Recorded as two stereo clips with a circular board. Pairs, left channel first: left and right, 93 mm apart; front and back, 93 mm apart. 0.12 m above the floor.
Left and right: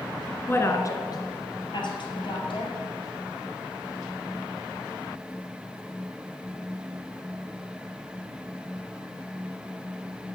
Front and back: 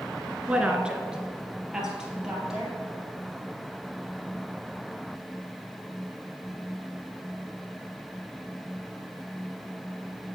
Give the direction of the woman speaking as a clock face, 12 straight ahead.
8 o'clock.